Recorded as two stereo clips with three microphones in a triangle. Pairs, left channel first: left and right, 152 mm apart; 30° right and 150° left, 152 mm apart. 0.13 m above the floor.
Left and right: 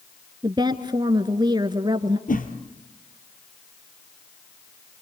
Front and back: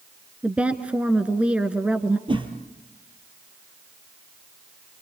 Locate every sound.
0.4 s a woman speaking: 130° right, 1.3 m
2.3 s a whoosh: 95° left, 2.5 m